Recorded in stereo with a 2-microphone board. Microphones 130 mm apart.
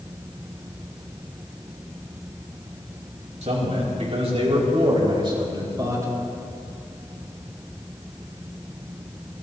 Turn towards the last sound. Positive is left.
turn(degrees=-25)  # may be behind; listen again after turning